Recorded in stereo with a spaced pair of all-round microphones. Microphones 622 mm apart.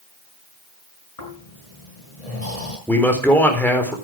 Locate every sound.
1.2 s snoring: 70° left (ahead or behind), 6 m
2.9 s a man speaking: 5° left (ahead or behind), 4 m